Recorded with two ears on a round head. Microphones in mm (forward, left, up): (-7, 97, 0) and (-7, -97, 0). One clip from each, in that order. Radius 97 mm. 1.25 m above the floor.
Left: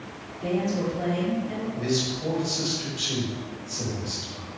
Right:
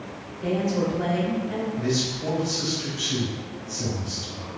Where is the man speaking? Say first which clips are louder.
Left 1 dB; 80° left, 1.4 m.